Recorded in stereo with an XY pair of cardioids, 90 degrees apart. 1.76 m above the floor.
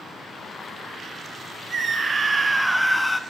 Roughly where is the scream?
Ahead right.